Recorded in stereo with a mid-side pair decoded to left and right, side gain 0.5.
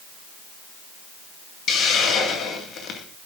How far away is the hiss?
About 1.8 m.